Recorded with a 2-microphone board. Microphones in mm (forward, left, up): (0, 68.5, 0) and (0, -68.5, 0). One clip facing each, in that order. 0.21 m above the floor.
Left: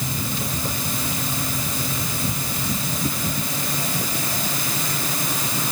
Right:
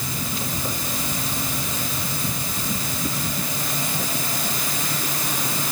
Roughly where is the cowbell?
No cowbell in this recording.